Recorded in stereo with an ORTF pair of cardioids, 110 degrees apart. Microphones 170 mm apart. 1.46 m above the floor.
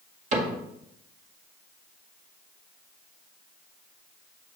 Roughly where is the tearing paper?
I don't hear tearing paper.